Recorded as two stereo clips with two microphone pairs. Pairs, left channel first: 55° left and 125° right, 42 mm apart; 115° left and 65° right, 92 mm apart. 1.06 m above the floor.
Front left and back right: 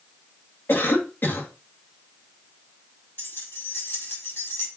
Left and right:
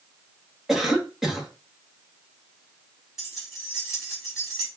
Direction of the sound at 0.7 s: 20° left.